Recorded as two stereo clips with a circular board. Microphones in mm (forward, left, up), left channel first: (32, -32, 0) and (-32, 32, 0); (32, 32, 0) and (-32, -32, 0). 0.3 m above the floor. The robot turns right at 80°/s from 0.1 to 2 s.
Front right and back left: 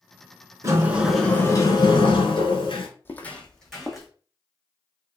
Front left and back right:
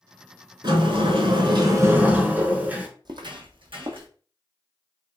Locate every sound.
0.6 s a sliding door: 170° right, 0.6 m; by 2.9 s 65° right, 0.6 m
3.0 s footsteps: 110° right, 0.6 m; by 4.1 s 135° right, 1.0 m